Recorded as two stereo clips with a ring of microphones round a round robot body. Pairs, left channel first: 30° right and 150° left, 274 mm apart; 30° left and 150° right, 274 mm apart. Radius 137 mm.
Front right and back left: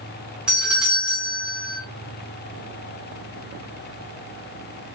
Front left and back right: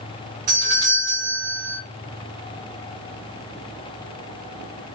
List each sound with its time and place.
0.5 s a doorbell: 125° right, 1.8 m